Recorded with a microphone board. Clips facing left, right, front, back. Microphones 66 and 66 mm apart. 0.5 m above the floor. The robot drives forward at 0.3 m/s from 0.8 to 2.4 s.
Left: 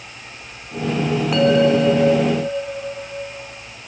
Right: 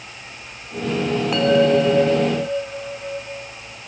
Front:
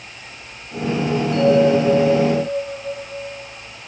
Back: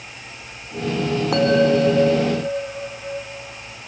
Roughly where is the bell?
Behind.